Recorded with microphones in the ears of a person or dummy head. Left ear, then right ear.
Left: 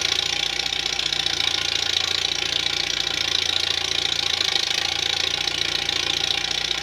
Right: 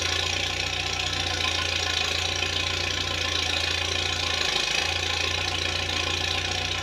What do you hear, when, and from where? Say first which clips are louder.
0.0 s an engine running: left 4 dB; 35° left (ahead or behind), 0.7 m